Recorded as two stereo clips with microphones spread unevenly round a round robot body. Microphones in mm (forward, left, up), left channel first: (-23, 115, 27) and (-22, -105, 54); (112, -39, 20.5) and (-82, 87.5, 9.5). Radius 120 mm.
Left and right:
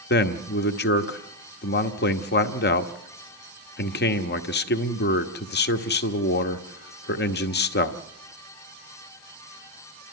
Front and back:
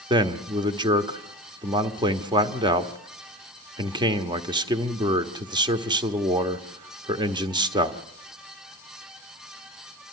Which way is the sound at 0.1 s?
80° left.